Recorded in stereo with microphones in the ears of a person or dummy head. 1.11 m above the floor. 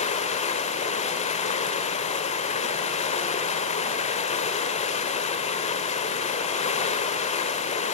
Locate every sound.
0.0 s running water: 35° left (ahead or behind), 1.3 m